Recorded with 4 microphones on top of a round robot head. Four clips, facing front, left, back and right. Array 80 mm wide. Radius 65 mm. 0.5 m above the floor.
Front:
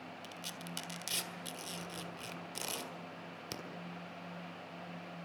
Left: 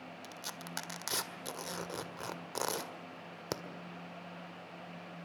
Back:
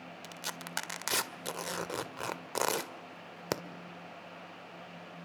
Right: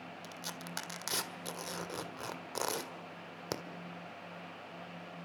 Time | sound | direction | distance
0.2 | tearing paper | straight behind | 1.6 m